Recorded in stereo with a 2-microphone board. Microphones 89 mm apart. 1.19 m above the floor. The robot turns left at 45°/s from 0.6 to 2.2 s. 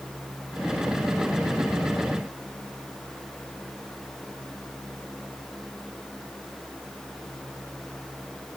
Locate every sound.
Only background noise.